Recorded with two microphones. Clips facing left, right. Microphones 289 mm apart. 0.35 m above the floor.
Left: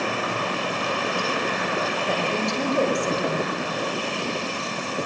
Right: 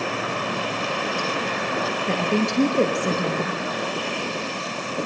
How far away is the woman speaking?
About 7 m.